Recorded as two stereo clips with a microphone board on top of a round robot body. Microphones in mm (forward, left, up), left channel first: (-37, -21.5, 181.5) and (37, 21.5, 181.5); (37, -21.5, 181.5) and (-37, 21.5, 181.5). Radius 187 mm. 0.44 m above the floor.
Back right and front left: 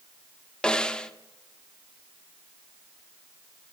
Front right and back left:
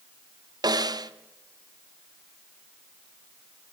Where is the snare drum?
135° left, 1.6 m.